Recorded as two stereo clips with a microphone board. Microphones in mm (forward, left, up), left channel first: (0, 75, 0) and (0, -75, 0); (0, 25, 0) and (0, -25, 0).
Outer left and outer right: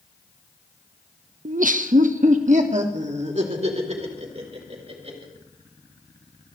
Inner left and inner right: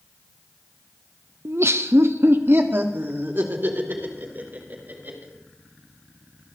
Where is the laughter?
55° right (ahead or behind), 0.6 m; by 5.3 s 45° right (ahead or behind), 4.5 m.